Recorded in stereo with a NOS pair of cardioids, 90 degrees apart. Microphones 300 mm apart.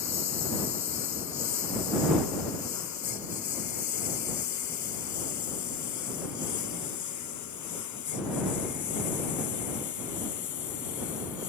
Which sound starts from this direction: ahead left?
A lawn mower, at 0.0 s.